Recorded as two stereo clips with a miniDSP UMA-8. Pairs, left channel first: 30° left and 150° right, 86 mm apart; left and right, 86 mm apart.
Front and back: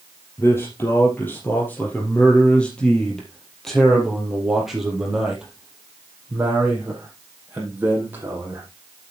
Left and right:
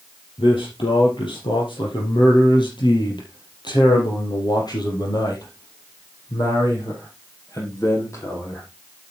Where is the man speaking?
85° left, 4 m; by 8.6 s 145° left, 6 m.